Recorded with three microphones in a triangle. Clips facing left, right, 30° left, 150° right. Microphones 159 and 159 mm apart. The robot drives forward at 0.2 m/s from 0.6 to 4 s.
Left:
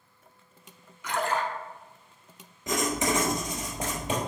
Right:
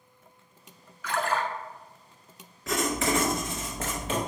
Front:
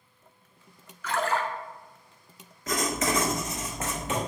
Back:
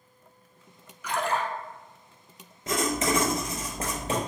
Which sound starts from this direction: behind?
Writing, at 2.7 s.